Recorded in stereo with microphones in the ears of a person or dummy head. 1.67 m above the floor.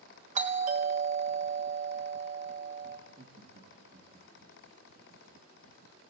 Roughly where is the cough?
I don't hear a cough.